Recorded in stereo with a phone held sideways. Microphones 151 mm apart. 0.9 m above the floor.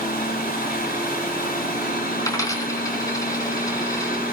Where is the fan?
80° left, 8.5 m.